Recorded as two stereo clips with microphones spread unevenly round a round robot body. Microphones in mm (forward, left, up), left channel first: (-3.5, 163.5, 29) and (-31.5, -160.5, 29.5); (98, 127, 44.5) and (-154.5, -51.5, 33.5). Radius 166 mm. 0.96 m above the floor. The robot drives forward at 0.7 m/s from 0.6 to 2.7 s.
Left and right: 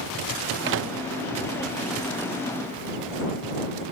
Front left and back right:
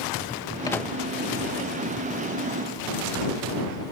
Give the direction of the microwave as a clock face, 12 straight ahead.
1 o'clock.